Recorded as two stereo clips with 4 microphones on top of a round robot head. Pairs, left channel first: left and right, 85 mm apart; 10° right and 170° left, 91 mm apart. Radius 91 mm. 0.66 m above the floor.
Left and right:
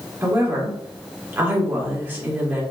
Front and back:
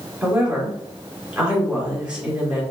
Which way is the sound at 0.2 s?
120° right.